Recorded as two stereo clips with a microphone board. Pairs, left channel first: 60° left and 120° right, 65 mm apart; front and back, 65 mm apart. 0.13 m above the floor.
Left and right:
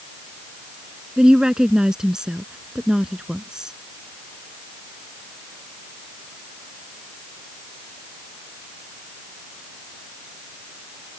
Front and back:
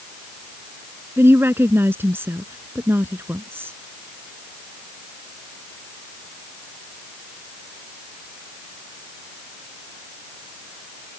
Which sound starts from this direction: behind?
A woman speaking, at 1.2 s.